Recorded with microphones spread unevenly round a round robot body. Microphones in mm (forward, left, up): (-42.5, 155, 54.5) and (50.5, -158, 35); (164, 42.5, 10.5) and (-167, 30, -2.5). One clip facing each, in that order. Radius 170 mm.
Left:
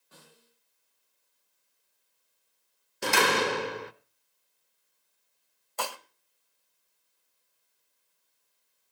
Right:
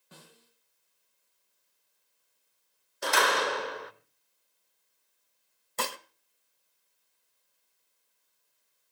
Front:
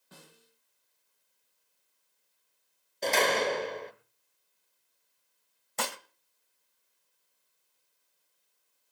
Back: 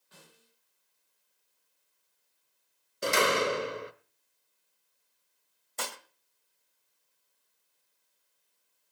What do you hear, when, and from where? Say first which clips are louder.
0.1 s a snare drum: right 2 dB, front 3 dB; 45° right, 9 m
3.0 s a door slam: left 3 dB, even; 120° left, 0.9 m
5.8 s dishes clattering: right 1 dB, front 4 dB; 15° right, 1.1 m